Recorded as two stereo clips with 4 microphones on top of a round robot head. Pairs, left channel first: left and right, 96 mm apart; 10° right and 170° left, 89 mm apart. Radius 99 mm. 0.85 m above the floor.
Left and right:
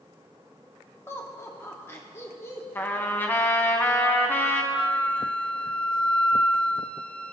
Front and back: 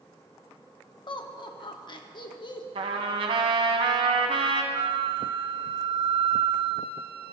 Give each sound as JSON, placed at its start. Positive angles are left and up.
{"t": 1.1, "sound": "laughter", "azimuth_deg": 25, "distance_m": 1.6}
{"t": 2.8, "sound": "a trumpet", "azimuth_deg": 160, "distance_m": 1.0}
{"t": 4.7, "sound": "a flute", "azimuth_deg": 170, "distance_m": 0.7}